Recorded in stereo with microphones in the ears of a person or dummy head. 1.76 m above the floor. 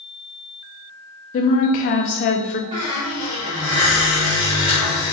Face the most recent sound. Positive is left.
turn(degrees=-30)  # may be behind; listen again after turning